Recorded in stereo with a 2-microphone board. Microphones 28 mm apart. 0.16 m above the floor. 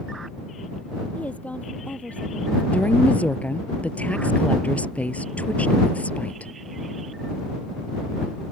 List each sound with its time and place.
1.1 s a woman speaking: 65° left (ahead or behind)
2.7 s a woman speaking: 65° left (ahead or behind)